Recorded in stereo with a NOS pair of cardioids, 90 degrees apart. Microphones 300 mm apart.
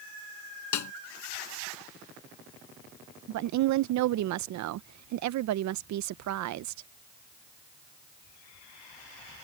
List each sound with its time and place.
0.7 s a snare drum: 70° left
3.3 s a woman speaking: 70° right